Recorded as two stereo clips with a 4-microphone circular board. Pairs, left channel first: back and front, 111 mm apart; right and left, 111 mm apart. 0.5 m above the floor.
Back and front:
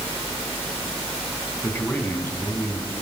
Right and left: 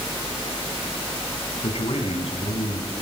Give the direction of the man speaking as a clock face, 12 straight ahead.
4 o'clock.